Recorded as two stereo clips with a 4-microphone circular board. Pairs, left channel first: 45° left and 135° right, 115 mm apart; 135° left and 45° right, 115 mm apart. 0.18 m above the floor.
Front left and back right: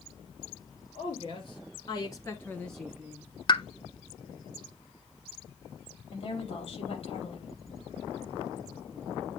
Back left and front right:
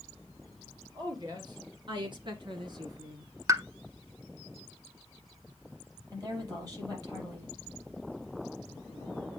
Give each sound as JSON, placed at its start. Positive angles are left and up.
{"t": 0.9, "sound": "a woman speaking", "azimuth_deg": 5, "distance_m": 3.5}
{"t": 3.5, "sound": "a pop", "azimuth_deg": 10, "distance_m": 0.5}
{"t": 6.1, "sound": "a woman speaking", "azimuth_deg": 10, "distance_m": 5.0}